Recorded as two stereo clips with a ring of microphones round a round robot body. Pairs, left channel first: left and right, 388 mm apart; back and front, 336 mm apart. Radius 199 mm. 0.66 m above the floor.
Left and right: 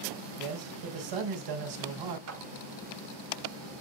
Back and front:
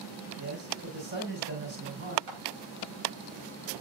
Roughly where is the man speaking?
Ahead right.